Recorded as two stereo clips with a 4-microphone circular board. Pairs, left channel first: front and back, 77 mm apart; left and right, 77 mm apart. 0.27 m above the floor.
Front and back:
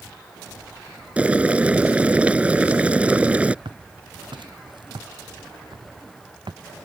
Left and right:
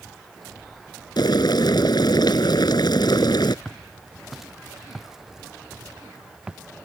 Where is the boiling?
110° left.